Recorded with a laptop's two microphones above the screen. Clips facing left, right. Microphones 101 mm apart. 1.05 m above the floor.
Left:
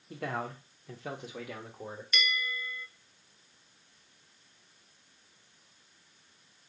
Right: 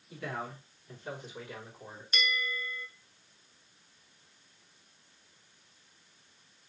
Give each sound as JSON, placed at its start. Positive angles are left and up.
{"t": 0.1, "sound": "a man speaking", "side_deg": 55, "distance_m": 1.1}
{"t": 2.1, "sound": "a bell", "side_deg": -35, "distance_m": 0.6}